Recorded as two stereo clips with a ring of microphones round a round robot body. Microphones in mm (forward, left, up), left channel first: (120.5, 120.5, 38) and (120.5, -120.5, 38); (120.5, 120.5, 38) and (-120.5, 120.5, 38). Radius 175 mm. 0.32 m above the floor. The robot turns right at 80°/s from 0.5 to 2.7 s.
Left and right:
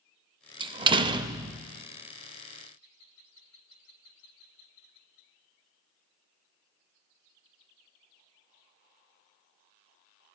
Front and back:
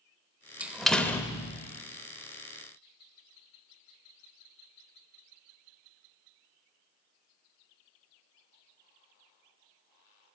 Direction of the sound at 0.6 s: 105° right.